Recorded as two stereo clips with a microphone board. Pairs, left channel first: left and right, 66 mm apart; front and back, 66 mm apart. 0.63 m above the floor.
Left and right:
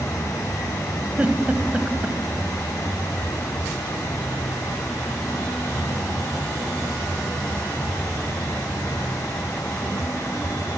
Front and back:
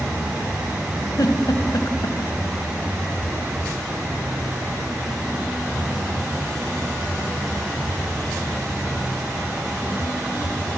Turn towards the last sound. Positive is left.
turn(degrees=-20)